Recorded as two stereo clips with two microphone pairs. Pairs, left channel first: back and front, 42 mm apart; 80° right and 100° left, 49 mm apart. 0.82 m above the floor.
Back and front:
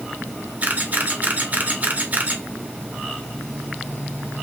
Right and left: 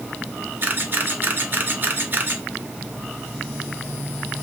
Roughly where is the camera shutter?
Ahead left.